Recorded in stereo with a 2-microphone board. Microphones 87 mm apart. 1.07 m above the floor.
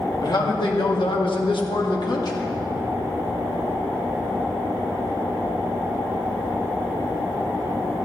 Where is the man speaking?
50° left (ahead or behind), 2 m; by 2.5 s 45° left (ahead or behind), 2 m.